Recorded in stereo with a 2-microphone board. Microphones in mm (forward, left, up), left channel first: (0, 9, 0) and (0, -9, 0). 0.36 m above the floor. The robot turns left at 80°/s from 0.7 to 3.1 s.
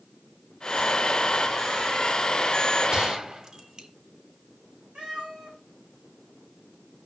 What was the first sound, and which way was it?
A gunshot, 50° right (ahead or behind).